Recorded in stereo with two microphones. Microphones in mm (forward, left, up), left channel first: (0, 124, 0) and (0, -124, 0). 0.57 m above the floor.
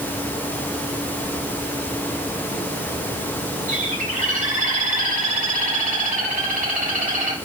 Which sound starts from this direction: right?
A bird, at 3.7 s.